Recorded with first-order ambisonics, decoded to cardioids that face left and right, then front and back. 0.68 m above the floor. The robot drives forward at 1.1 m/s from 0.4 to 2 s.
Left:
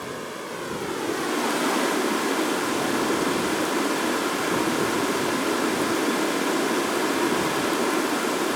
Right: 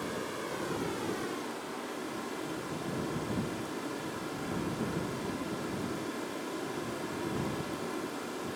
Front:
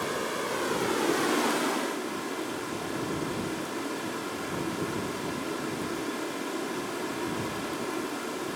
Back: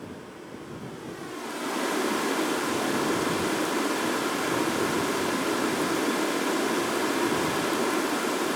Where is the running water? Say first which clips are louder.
Left 4 dB, front 11 dB; 20° left, 1.6 m; by 8.6 s 120° left, 0.6 m.